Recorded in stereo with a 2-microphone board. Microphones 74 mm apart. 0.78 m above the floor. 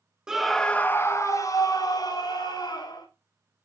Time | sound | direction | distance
0.3 | a scream | 10° right (ahead or behind) | 1.3 m